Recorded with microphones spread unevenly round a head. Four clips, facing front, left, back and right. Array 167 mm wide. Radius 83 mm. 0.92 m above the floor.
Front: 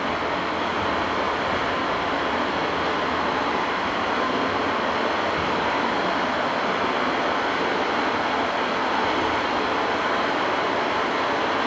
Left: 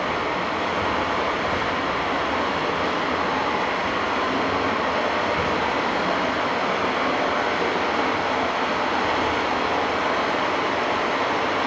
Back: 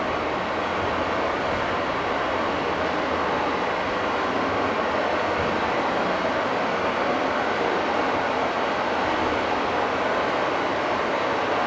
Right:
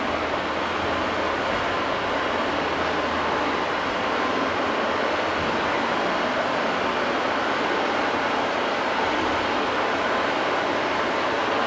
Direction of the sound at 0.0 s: 35° left.